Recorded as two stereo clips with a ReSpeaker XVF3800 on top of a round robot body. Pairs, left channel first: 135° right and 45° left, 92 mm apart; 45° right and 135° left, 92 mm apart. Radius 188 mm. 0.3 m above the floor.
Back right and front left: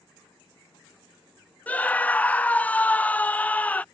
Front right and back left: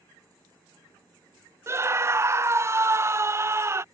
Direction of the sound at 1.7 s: 165° left.